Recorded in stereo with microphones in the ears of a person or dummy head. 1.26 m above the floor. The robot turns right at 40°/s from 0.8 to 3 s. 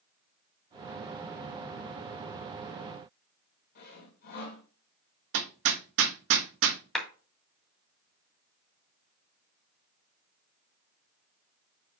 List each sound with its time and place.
3.8 s sawing: 50° left (ahead or behind), 1.9 m
5.3 s hammering: 60° right (ahead or behind), 0.9 m
7.0 s a clap: centre (ahead or behind), 2.5 m